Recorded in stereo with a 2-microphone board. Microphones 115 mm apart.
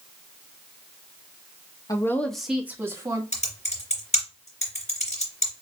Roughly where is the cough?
No cough in this recording.